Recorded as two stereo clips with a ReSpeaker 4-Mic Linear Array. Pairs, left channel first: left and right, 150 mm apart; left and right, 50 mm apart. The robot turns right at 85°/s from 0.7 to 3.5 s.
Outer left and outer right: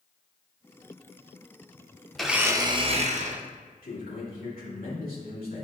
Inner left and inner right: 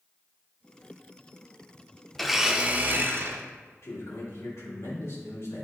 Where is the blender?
175° left, 0.6 m; by 3.4 s 75° right, 0.6 m.